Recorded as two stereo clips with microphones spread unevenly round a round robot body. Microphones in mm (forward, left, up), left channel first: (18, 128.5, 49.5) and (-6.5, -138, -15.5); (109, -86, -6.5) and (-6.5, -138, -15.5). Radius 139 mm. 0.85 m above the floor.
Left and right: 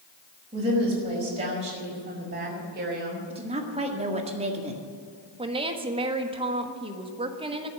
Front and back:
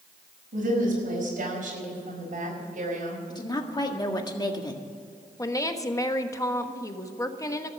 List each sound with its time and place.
0.5 s a woman speaking: 170° right, 5 m; by 3.2 s 150° right, 4.5 m
3.3 s a woman speaking: 35° right, 1.8 m
5.4 s a woman speaking: 40° right, 1.3 m